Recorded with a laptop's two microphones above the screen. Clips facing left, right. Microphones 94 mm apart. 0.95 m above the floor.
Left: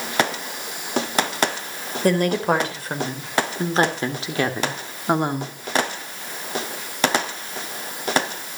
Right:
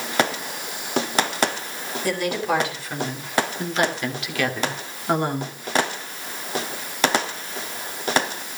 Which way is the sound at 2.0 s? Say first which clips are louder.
Left 5 dB; 45° left (ahead or behind).